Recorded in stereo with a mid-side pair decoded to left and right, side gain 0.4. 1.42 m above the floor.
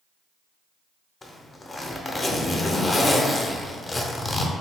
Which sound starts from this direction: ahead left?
A zipper, at 1.2 s.